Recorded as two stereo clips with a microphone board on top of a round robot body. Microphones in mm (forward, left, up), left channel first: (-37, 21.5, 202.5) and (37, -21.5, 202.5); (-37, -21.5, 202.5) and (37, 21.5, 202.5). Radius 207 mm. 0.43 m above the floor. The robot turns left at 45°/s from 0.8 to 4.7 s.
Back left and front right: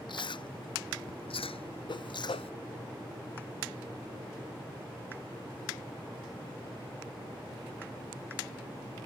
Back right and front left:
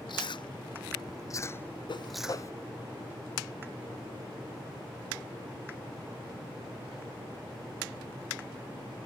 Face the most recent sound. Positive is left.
turn(degrees=55)